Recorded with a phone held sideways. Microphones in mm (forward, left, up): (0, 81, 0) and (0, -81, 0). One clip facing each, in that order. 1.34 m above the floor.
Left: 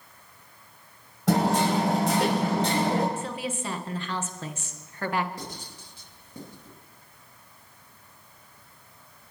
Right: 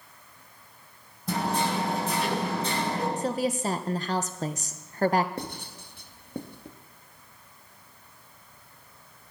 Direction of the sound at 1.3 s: 75° left (ahead or behind).